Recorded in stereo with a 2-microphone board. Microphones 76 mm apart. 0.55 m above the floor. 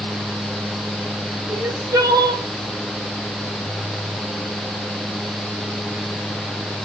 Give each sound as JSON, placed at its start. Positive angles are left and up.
{"t": 1.5, "sound": "crying", "side_deg": -60, "distance_m": 0.9}